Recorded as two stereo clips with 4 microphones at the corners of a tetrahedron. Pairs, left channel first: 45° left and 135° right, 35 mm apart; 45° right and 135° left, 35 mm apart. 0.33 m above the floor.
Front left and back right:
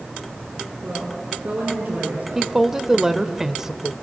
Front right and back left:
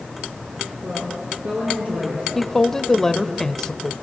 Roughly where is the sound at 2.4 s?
Right.